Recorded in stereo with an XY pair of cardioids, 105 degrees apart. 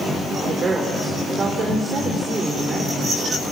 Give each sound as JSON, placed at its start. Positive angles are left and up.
{"t": 0.4, "sound": "a woman speaking", "azimuth_deg": -45, "distance_m": 4.0}